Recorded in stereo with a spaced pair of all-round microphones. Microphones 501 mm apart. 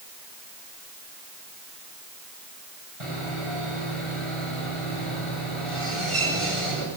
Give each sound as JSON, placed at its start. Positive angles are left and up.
{"t": 3.0, "sound": "sawing", "side_deg": -75, "distance_m": 8.5}